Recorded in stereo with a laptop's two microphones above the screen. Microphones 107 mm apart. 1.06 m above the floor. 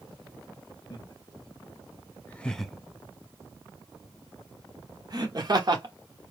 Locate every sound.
0.9 s laughter: 40° left (ahead or behind), 1.0 m; by 6.3 s 45° right (ahead or behind), 1.9 m